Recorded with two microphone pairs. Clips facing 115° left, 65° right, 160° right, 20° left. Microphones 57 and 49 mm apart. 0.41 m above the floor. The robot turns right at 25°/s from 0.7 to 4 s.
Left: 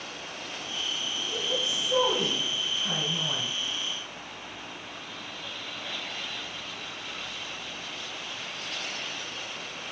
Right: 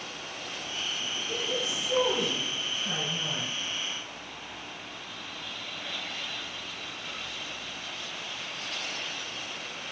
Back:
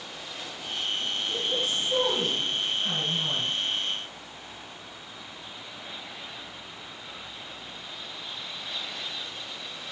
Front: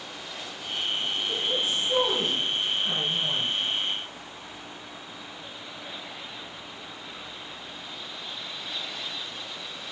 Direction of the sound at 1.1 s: 60° left.